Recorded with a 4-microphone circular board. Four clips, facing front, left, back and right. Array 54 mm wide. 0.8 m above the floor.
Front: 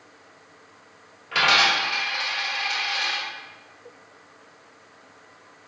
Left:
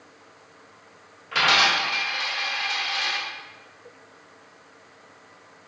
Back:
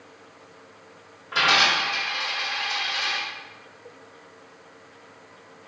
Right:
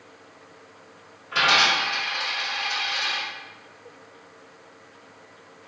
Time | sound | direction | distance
1.3 | a dropped coin | 25° left | 1.6 m